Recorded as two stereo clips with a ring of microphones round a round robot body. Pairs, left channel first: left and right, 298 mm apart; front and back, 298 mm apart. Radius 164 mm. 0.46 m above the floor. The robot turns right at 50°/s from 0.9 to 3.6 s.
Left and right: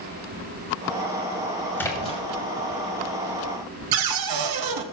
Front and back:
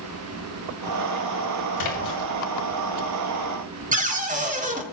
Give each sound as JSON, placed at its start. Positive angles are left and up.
{"t": 1.8, "sound": "a splash", "azimuth_deg": 5, "distance_m": 2.5}
{"t": 3.9, "sound": "a cupboard door", "azimuth_deg": -115, "distance_m": 1.1}